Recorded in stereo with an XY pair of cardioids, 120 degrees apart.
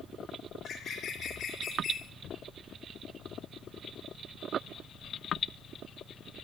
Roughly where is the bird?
Ahead left.